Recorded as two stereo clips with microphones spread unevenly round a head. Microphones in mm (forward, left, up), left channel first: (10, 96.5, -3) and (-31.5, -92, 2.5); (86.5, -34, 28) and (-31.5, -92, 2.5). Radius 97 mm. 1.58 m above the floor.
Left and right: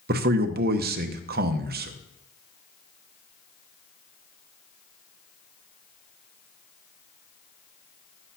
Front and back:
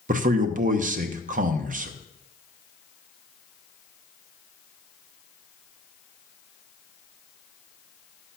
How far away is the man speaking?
About 0.8 m.